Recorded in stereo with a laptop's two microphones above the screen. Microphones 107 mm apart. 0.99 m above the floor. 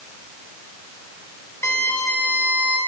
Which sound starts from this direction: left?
A violin, at 1.6 s.